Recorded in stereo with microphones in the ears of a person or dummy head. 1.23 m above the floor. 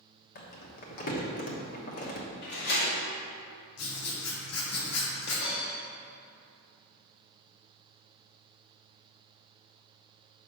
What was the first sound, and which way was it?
Crumpling, 55° left (ahead or behind).